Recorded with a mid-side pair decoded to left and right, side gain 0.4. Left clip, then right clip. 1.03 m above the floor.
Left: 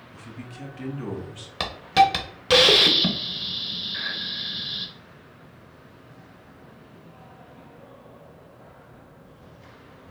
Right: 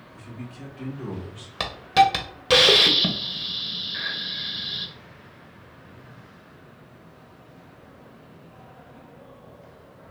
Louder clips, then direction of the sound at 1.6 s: Even; straight ahead.